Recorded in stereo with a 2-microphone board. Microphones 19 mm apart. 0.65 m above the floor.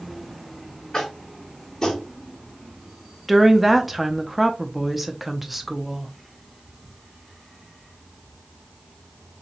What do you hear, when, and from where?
0.9 s tapping: 25° left (ahead or behind), 1.7 m
3.3 s a woman speaking: 5° right (ahead or behind), 0.6 m